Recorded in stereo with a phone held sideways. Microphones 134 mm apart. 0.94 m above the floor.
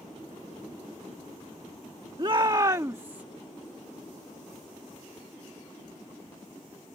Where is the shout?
40° right (ahead or behind); by 3.2 s 15° right (ahead or behind).